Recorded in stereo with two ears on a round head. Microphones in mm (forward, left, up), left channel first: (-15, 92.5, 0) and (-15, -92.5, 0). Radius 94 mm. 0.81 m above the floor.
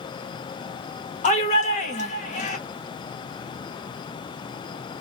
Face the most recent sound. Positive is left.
turn(degrees=35)  # may be behind; listen again after turning